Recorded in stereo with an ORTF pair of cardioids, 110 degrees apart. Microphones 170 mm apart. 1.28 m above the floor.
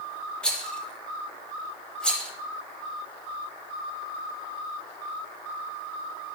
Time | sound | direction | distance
0.4 | a rattle | 5° left | 2 m